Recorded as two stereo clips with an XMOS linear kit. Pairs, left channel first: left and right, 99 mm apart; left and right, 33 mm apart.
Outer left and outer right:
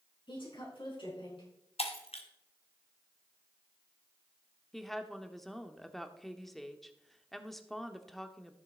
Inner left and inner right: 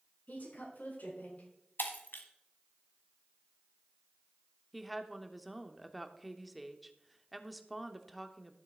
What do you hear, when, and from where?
0.3 s a woman speaking: 60° left (ahead or behind), 5.5 m
1.8 s breaking glass: 85° left, 1.6 m
4.7 s a woman speaking: centre (ahead or behind), 0.9 m